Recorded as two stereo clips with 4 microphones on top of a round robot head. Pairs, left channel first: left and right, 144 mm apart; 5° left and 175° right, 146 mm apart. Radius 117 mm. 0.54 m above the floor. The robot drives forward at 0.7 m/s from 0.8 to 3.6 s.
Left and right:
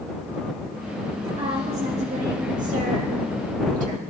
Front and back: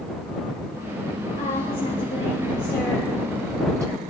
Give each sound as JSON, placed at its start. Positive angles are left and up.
{"t": 1.4, "sound": "a woman speaking", "azimuth_deg": -40, "distance_m": 1.8}